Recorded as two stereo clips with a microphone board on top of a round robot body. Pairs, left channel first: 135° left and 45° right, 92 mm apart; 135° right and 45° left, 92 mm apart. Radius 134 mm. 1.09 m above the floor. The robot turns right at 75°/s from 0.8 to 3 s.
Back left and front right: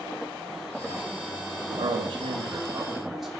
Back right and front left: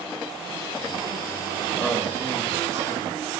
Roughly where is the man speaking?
Ahead right.